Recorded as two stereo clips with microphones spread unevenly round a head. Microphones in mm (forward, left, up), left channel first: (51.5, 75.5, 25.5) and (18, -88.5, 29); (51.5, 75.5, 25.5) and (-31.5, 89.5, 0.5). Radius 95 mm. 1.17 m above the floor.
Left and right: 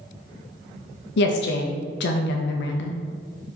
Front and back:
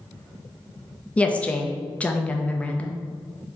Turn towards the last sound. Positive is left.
turn(degrees=65)